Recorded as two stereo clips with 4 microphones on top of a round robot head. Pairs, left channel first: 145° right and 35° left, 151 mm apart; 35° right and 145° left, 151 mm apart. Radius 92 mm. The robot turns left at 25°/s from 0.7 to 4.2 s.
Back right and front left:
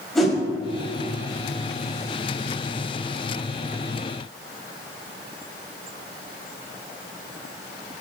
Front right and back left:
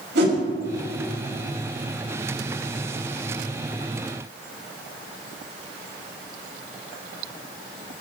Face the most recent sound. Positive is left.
turn(degrees=40)